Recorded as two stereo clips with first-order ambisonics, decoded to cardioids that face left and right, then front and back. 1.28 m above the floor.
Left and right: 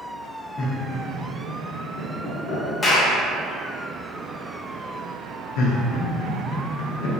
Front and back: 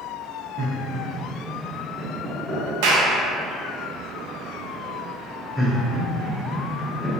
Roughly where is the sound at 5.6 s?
Left.